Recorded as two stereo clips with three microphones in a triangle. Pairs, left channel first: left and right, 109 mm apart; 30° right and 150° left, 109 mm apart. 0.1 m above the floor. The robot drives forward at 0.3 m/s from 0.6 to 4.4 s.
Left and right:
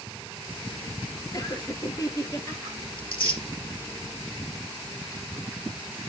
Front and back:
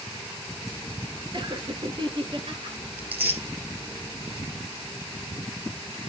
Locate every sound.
1.3 s laughter: 130° left, 1.9 m; by 2.8 s 140° left, 2 m
3.0 s tearing paper: 80° left, 2.5 m